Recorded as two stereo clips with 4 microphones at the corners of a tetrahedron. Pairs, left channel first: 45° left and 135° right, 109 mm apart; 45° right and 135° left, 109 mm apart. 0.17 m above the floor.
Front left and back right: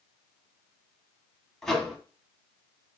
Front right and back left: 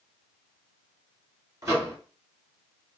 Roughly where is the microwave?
Behind left.